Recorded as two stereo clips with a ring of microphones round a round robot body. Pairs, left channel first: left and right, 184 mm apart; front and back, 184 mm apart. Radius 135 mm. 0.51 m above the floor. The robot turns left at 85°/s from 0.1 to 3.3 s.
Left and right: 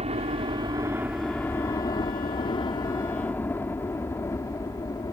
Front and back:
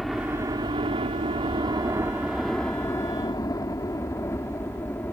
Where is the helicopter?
90° right; by 5.1 s 60° left.